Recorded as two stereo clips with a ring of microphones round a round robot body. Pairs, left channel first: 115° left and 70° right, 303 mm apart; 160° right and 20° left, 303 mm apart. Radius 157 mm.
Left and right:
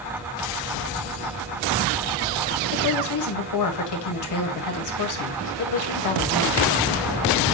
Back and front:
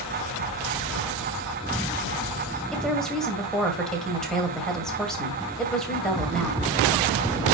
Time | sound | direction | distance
2.7 | a woman speaking | 115° left | 2 m